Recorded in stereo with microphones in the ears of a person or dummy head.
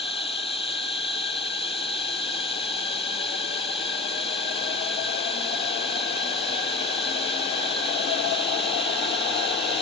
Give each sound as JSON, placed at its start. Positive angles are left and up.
{"t": 0.0, "sound": "running water", "side_deg": 30}